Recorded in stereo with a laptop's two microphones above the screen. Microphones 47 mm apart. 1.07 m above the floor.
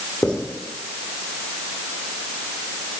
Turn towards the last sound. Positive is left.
turn(degrees=20)  # may be behind; listen again after turning